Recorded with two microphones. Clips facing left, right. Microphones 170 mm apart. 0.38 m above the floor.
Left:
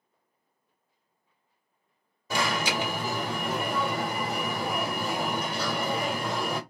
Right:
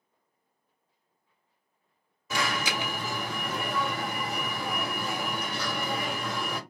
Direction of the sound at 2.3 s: 35° left (ahead or behind).